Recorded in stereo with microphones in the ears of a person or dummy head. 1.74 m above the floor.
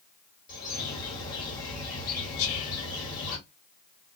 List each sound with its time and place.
0.5 s a bird: 25° left (ahead or behind), 1.9 m
2.4 s whispering: 75° left (ahead or behind), 0.9 m